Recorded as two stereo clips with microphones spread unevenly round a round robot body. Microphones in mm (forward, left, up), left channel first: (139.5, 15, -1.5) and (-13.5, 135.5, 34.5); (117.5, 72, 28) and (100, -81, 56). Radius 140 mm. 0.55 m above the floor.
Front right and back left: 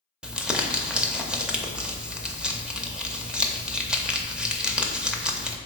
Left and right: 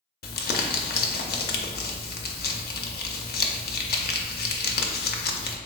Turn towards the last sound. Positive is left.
turn(degrees=60)